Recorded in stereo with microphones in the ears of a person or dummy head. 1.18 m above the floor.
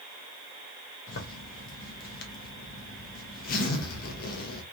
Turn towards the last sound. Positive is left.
turn(degrees=45)  # may be behind; listen again after turning